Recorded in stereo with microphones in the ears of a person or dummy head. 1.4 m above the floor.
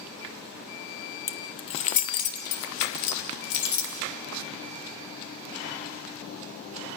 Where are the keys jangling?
15° left (ahead or behind), 1.0 m; by 3.9 s 75° left (ahead or behind), 2.5 m.